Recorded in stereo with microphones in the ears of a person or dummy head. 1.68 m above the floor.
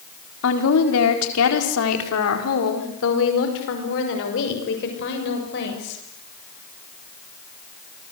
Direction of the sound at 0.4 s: 65° left (ahead or behind).